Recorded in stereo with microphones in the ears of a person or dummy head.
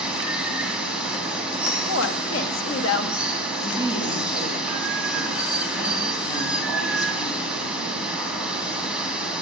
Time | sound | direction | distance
0.0 | running water | 5° right (ahead or behind) | 2.5 m
1.9 | a woman speaking | 80° left | 1.6 m
3.6 | a woman speaking | 25° left (ahead or behind) | 6.5 m